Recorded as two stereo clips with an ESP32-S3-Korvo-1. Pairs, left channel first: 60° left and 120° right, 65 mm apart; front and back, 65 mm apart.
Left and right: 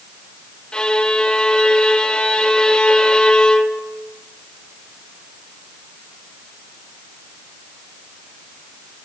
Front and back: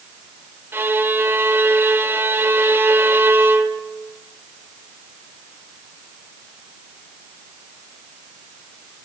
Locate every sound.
0.7 s a violin: 135° left, 0.9 m